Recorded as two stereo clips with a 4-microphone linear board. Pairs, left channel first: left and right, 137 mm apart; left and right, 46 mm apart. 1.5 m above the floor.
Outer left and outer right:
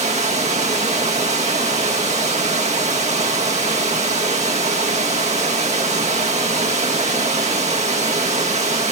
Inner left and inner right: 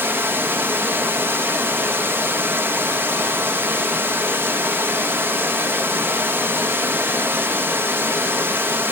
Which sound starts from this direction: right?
Running water, at 0.0 s.